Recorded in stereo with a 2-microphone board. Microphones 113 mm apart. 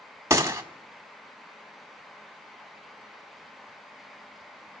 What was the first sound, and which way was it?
A gunshot, 25° right (ahead or behind).